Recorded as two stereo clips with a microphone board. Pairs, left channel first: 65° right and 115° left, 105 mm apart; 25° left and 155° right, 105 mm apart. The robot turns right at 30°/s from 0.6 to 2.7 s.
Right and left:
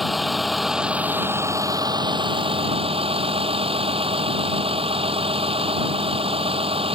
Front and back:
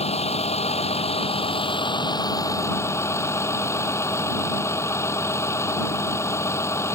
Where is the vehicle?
25° left; by 7.0 s 85° left.